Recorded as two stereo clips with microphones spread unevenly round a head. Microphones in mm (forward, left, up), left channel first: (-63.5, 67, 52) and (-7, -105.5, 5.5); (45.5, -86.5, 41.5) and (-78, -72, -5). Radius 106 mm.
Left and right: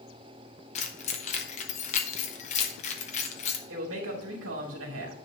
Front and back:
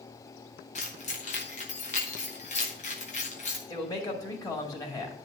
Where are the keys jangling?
50° left, 0.9 m.